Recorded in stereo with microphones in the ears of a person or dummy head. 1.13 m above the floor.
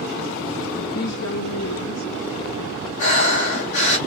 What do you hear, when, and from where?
0.9 s a woman speaking: 45° left (ahead or behind), 0.5 m; by 2.9 s 80° left, 2 m
3.0 s breathing: 55° left (ahead or behind), 2 m